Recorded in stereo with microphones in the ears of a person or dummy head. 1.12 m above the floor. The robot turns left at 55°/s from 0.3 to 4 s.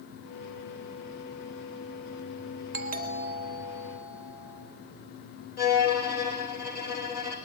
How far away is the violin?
About 4.5 m.